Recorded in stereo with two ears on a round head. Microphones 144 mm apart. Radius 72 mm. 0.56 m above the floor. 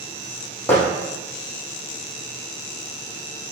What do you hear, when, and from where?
0.7 s hammering: 15° left (ahead or behind), 8 m